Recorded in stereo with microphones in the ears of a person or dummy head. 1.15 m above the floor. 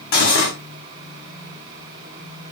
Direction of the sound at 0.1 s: 50° left (ahead or behind).